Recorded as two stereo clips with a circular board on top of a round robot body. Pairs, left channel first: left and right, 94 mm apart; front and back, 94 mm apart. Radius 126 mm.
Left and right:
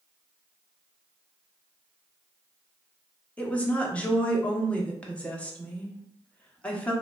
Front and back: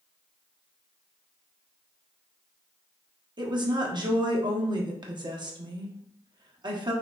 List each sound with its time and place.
3.4 s a woman speaking: 165° left, 1.4 m